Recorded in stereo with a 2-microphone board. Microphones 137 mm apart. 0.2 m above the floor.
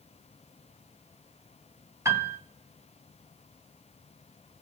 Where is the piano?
20° right (ahead or behind), 1.0 m.